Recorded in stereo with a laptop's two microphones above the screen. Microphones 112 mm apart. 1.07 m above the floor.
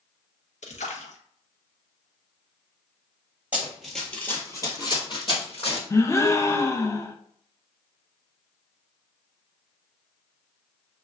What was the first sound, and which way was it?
A splash, 80° left.